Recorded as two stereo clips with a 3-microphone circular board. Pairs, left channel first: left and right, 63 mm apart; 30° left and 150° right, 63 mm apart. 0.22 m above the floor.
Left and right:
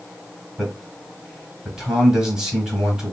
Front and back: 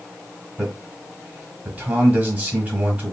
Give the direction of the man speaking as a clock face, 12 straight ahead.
5 o'clock.